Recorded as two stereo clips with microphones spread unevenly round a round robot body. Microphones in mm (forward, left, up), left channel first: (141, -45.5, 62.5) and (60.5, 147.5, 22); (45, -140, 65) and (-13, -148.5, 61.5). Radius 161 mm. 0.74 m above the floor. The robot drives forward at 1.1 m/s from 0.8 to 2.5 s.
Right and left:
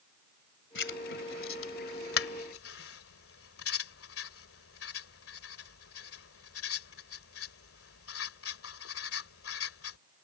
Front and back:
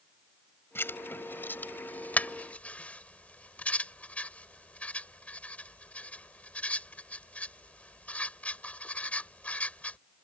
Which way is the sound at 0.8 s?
40° right.